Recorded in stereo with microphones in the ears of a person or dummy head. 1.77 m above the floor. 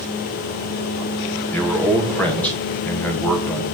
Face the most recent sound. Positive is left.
turn(degrees=5)  # may be behind; listen again after turning